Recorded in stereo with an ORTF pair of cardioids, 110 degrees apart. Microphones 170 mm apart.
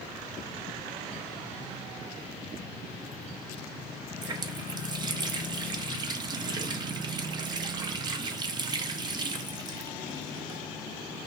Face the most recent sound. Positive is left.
turn(degrees=-25)